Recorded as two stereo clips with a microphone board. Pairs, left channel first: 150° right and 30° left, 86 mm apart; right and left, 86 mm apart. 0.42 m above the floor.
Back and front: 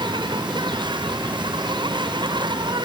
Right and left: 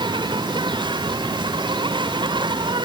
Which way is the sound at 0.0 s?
60° left.